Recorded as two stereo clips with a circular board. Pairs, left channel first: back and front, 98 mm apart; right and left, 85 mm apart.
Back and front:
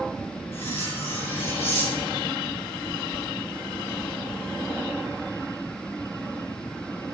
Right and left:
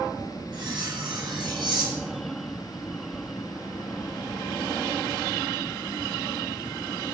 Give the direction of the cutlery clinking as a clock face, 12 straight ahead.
8 o'clock.